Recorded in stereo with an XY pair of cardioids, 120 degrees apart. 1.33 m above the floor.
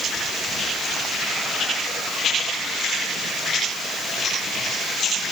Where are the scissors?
No scissors in this recording.